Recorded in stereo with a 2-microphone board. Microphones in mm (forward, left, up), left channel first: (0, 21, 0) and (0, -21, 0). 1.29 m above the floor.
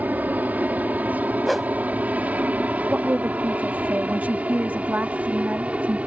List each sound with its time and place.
0.0 s an aircraft: 45° right (ahead or behind); by 6.1 s 35° right (ahead or behind)
1.5 s a whoosh: centre (ahead or behind)
2.9 s a woman speaking: 50° right (ahead or behind)